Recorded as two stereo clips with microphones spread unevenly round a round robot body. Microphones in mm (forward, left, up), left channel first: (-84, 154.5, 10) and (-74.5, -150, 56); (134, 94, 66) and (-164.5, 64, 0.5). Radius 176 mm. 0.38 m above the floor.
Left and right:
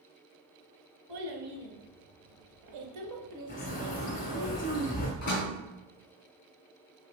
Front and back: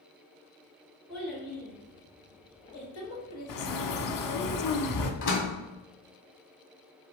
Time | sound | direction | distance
1.1 | a child speaking | 85° right | 2 m
3.5 | a bird | 20° left | 0.9 m
5.2 | a door slam | 30° left | 2.5 m